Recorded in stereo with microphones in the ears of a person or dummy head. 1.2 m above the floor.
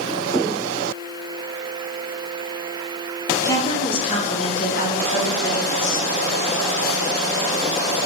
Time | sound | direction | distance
3.4 | a woman speaking | 20° left (ahead or behind) | 0.6 m